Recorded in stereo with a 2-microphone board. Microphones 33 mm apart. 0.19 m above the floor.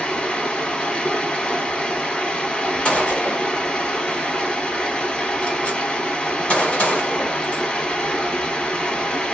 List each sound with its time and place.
0.0 s running water: 20° left (ahead or behind), 1.4 m
2.9 s a gunshot: 40° left (ahead or behind), 1.3 m